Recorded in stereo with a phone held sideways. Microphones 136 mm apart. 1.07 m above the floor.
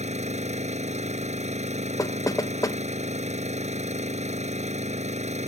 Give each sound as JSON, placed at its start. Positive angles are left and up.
{"t": 0.0, "sound": "an engine running", "side_deg": -55}
{"t": 2.0, "sound": "knocking", "side_deg": 25}